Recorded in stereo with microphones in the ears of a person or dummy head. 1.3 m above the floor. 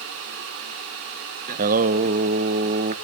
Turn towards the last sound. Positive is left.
turn(degrees=-40)  # may be behind; listen again after turning